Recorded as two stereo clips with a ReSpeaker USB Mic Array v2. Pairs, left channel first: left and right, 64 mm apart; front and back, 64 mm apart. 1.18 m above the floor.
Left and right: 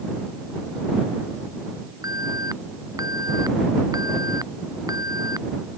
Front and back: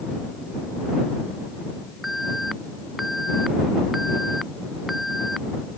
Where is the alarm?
90° right.